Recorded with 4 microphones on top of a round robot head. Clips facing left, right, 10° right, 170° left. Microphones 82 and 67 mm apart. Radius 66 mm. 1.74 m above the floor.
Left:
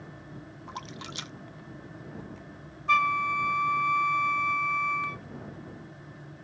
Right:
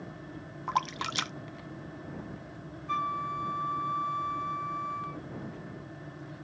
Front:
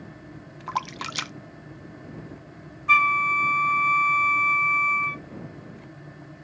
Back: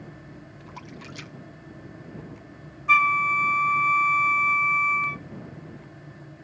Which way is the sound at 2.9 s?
80° left.